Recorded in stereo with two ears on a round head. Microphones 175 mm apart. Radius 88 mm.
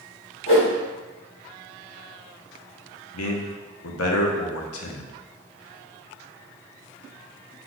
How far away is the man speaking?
About 0.7 m.